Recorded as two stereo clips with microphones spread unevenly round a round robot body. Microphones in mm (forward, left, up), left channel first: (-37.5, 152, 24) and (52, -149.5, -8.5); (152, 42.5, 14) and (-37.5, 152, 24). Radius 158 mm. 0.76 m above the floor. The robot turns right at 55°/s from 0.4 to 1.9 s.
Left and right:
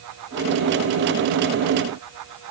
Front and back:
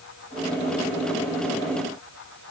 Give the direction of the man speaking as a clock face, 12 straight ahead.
No man speaking in this recording.